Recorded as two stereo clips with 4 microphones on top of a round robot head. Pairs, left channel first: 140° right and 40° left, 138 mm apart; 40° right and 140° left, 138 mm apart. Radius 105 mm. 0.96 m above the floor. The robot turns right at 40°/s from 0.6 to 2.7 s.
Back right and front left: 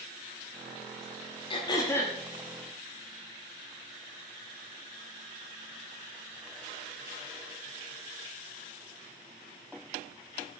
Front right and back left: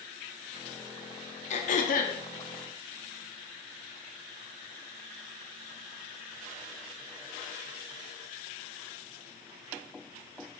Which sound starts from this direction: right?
Throat clearing, at 1.5 s.